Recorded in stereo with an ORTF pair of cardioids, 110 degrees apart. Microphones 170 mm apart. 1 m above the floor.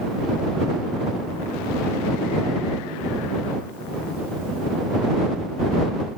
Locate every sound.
Only background noise.